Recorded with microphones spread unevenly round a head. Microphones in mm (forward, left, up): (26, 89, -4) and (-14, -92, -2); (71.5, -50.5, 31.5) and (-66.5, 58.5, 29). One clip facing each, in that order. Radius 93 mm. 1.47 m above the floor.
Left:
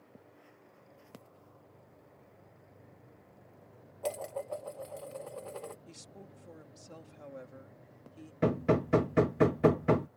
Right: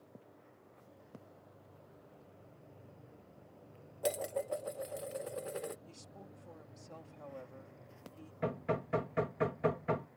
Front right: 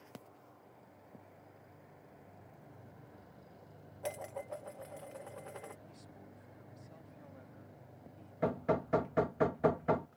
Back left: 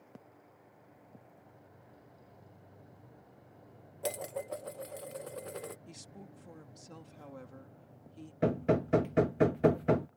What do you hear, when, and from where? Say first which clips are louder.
4.0 s dishes clattering: right 1 dB, back left 4 dB; 175° right
5.9 s a woman speaking: left 2 dB, back left 3 dB; 145° left
8.4 s hammering: left 8 dB, back left 4 dB; 85° left